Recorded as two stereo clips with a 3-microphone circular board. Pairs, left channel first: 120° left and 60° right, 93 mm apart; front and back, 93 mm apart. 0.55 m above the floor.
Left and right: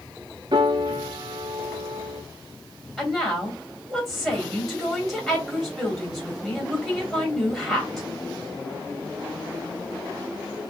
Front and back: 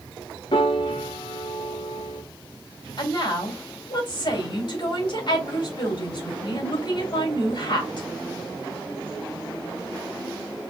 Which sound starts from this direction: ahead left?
A woman speaking, at 3.0 s.